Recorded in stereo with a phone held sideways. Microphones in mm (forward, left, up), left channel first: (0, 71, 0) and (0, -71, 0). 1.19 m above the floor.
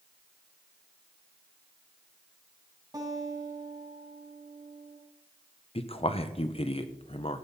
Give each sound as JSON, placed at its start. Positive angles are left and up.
{"t": 2.9, "sound": "a guitar", "side_deg": -30, "distance_m": 3.0}
{"t": 5.8, "sound": "a man speaking", "side_deg": 45, "distance_m": 0.9}